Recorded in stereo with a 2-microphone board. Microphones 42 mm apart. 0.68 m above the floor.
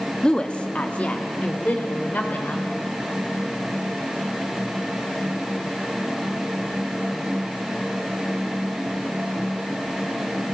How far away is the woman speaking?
About 1.0 m.